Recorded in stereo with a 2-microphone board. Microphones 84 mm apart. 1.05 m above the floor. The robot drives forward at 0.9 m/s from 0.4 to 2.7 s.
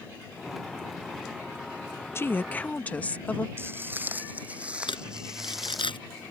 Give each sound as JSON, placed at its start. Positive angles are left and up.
{"t": 2.1, "sound": "a woman speaking", "side_deg": 30}
{"t": 3.6, "sound": "footsteps", "side_deg": -25}
{"t": 4.9, "sound": "crumpling", "side_deg": 85}